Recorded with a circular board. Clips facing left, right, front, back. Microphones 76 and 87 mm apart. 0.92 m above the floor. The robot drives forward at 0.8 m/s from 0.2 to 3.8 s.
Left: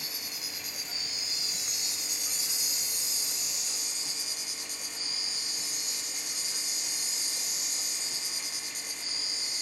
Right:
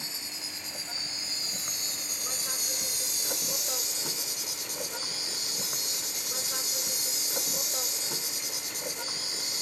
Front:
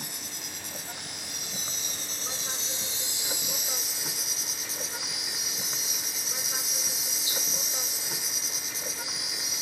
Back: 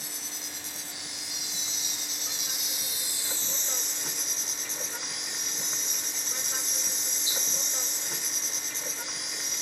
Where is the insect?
30° right; by 9.6 s 85° right.